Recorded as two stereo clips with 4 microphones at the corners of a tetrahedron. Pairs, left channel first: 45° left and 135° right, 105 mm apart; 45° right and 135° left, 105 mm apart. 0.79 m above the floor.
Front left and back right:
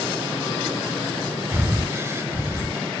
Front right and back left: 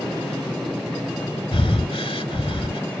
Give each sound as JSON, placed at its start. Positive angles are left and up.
{"t": 1.5, "sound": "breathing", "azimuth_deg": -70}